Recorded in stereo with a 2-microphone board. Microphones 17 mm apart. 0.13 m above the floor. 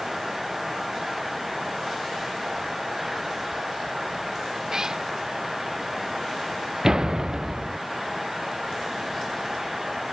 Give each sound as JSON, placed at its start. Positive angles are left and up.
{"t": 4.7, "sound": "a cat meowing", "side_deg": -30}
{"t": 6.8, "sound": "a door slam", "side_deg": -30}